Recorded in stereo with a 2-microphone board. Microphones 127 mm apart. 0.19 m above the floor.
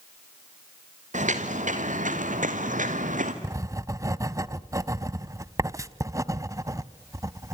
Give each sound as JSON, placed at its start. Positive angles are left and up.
{"t": 1.1, "sound": "footsteps", "side_deg": -70, "distance_m": 2.5}
{"t": 3.4, "sound": "writing", "side_deg": -25, "distance_m": 0.5}